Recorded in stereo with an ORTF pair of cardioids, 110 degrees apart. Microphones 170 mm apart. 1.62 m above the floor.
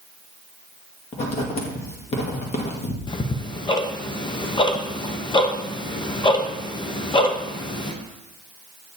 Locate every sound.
1.1 s writing: 40° left, 1.8 m
3.1 s ticking: 25° left, 0.9 m